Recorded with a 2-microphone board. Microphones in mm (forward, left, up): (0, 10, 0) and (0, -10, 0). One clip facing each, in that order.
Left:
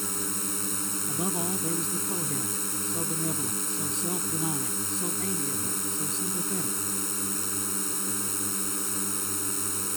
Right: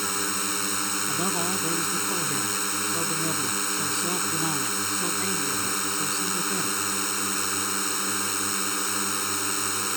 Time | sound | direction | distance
0.0 | a drone | 35° right (ahead or behind) | ?
1.1 | a man speaking | 20° right (ahead or behind) | ?